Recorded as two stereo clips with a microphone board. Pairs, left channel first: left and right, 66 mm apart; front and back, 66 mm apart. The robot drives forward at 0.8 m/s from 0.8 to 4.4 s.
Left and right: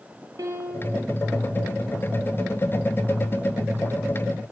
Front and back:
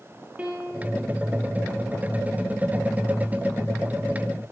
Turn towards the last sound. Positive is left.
turn(degrees=-140)